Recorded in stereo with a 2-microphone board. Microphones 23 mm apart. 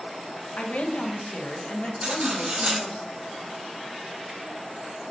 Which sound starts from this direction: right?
Cutlery clinking, at 2.0 s.